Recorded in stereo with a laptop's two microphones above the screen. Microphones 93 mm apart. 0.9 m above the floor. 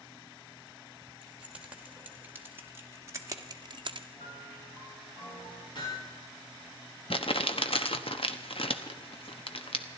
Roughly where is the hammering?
Left.